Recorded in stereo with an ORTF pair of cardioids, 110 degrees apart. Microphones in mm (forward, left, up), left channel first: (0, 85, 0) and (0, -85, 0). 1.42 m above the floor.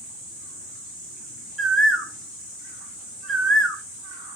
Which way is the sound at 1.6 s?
Straight ahead.